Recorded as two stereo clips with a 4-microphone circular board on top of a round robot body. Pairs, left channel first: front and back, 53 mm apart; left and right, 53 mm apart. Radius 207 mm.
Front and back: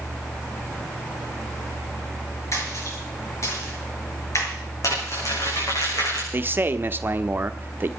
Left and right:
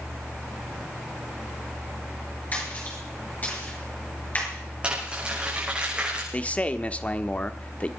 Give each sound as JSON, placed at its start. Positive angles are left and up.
{"t": 2.5, "sound": "a splash", "azimuth_deg": 35, "distance_m": 6.5}
{"t": 4.8, "sound": "crumpling", "azimuth_deg": -20, "distance_m": 7.5}
{"t": 6.3, "sound": "a man speaking", "azimuth_deg": 145, "distance_m": 1.3}